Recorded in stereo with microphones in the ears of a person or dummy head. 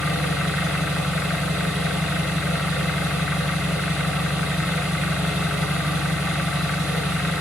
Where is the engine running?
5° right (ahead or behind), 0.7 m.